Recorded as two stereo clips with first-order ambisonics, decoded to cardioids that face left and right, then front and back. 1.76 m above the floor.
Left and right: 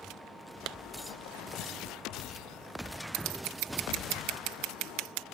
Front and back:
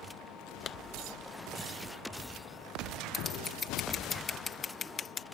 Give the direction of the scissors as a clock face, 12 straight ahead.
2 o'clock.